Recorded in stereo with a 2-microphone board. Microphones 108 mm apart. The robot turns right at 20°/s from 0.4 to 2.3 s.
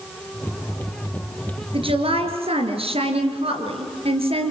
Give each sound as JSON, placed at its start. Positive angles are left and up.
{"t": 1.7, "sound": "a woman speaking", "side_deg": -60, "distance_m": 3.5}